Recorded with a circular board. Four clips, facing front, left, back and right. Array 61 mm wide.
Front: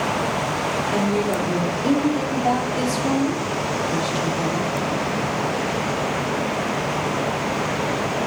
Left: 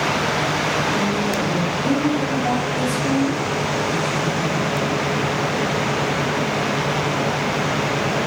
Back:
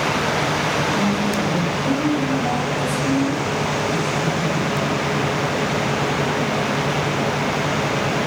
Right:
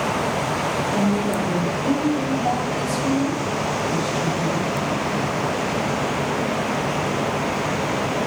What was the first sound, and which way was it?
A woman speaking, 5° left.